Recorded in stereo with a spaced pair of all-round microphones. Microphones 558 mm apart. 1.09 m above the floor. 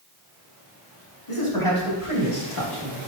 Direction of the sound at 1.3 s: 80° left.